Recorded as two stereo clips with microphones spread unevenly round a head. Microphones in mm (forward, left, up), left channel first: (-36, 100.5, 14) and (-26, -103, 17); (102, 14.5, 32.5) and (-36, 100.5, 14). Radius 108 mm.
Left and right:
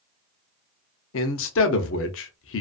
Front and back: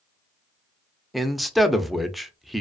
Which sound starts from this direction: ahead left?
A man speaking, at 1.1 s.